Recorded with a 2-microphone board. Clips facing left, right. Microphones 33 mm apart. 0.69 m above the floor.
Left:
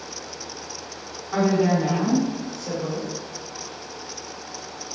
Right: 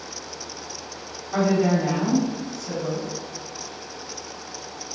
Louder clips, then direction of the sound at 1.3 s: Even; 40° left (ahead or behind).